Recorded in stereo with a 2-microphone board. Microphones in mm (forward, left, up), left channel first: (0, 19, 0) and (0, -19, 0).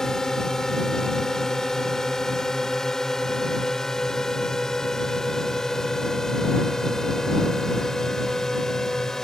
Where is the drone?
10° left (ahead or behind).